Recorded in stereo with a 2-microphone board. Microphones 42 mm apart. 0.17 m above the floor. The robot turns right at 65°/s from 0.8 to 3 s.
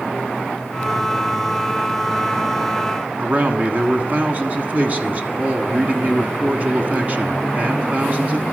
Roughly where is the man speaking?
Right.